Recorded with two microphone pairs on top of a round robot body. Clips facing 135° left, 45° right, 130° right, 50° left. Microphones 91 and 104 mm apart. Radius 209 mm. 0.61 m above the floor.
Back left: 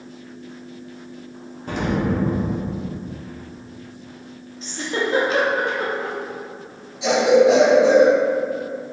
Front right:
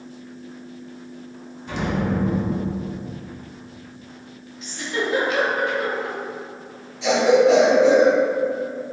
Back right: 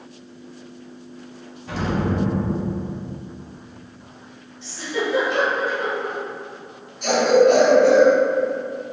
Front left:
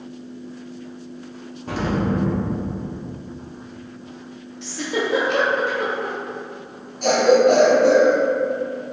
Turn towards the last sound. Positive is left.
turn(degrees=70)